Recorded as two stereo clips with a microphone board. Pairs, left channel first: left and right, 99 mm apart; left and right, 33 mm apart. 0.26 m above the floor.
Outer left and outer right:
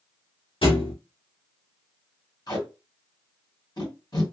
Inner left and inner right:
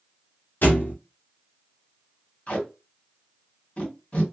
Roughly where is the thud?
Left.